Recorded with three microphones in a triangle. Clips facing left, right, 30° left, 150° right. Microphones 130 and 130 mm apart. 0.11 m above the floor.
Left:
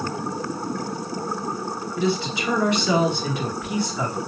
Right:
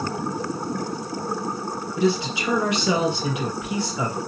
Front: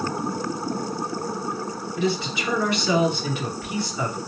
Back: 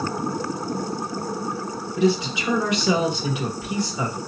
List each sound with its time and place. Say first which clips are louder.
2.0 s a man speaking: right 2 dB, back 5 dB; 125° right, 1.4 m